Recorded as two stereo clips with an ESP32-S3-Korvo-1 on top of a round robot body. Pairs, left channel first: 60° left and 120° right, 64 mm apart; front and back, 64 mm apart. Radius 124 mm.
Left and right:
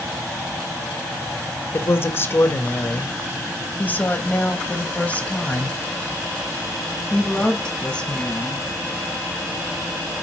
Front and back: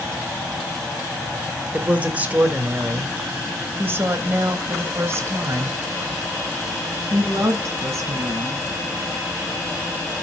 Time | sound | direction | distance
1.7 | a woman speaking | 110° left | 3 m